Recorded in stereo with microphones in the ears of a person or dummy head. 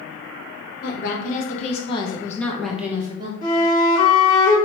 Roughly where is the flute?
Left.